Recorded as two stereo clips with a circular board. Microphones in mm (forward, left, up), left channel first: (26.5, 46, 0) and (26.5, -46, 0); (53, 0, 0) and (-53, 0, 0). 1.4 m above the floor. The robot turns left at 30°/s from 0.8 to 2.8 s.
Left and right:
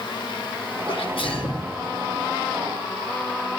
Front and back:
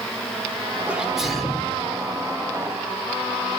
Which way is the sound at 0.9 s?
105° left.